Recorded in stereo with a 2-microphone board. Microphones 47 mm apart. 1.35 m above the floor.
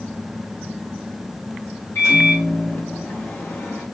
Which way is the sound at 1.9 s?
80° left.